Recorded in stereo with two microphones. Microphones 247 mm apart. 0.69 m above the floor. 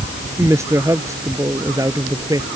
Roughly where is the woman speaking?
Centre.